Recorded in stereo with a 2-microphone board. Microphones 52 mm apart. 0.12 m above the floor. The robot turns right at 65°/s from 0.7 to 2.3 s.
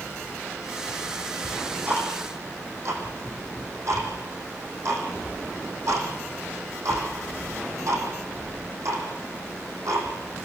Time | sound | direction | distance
1.4 | ticking | 15° right (ahead or behind) | 5 m